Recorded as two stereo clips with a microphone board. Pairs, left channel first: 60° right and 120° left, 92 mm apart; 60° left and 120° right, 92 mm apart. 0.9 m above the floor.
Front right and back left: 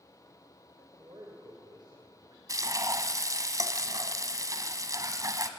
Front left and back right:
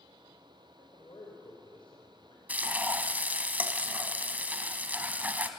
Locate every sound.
0.8 s a man speaking: 85° left, 4 m
2.5 s frying: 170° left, 1.8 m